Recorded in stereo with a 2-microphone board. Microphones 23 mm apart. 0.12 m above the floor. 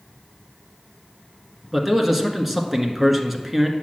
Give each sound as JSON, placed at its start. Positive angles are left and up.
{"t": 1.7, "sound": "a man speaking", "side_deg": -10, "distance_m": 1.3}